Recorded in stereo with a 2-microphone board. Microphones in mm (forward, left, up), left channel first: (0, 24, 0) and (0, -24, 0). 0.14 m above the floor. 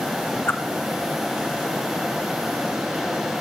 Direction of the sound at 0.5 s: 55° left (ahead or behind).